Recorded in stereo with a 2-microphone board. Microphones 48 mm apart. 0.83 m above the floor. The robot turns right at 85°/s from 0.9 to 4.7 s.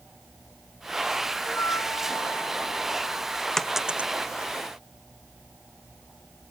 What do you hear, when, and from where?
1.5 s a flute: 40° left; by 3.5 s 145° right
3.6 s a dropped coin: 10° left (ahead or behind); by 4.1 s 35° right (ahead or behind)